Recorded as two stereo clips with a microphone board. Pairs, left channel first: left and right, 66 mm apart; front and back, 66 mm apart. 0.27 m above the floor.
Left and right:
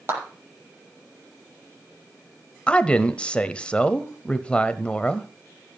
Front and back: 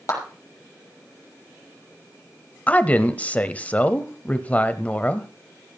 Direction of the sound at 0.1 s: 40° right.